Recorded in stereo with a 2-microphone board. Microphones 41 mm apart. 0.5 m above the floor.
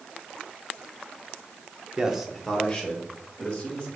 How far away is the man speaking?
About 0.8 m.